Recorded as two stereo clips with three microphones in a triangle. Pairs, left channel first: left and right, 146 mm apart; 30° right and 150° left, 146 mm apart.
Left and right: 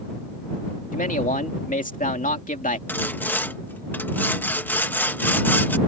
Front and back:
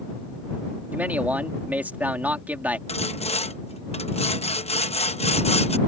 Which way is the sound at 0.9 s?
70° left.